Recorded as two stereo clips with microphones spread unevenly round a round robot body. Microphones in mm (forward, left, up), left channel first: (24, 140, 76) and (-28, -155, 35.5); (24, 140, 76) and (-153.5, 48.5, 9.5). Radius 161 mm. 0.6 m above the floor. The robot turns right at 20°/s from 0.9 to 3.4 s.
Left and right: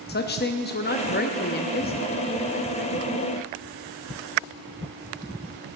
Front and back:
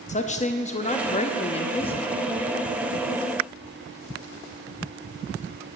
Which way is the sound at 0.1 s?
80° left.